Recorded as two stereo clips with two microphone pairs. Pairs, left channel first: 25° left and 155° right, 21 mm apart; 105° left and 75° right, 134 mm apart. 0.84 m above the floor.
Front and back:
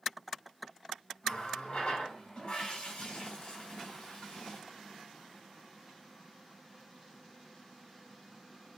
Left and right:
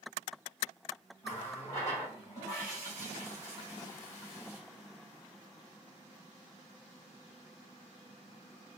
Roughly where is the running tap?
Ahead left.